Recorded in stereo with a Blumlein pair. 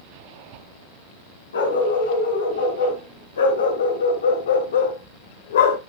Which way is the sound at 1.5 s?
70° left.